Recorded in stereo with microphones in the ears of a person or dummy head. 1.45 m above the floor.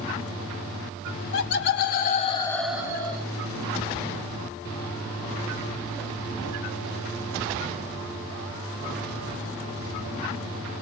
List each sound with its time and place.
1.3 s laughter: 70° left (ahead or behind), 1.4 m; by 3.3 s 30° right (ahead or behind), 1.1 m